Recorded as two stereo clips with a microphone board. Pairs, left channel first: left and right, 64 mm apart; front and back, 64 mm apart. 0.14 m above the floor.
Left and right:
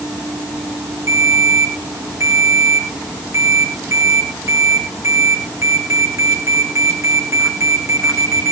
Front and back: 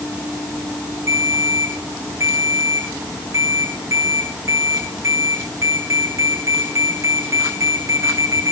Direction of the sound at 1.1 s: 135° right.